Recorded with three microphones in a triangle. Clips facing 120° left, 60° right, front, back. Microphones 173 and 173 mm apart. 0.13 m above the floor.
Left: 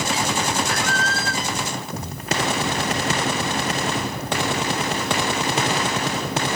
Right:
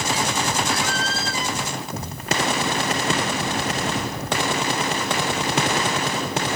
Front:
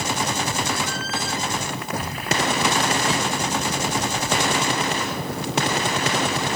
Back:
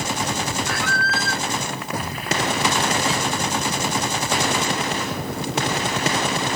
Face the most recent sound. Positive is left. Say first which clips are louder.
# even, back 1 dB
turn(degrees=160)